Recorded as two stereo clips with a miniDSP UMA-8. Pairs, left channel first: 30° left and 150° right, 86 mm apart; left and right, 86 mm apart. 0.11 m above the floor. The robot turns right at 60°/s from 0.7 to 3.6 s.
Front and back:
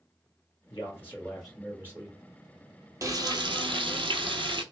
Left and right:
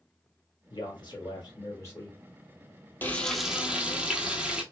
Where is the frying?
155° left, 0.6 m; by 4.6 s 170° right, 0.6 m.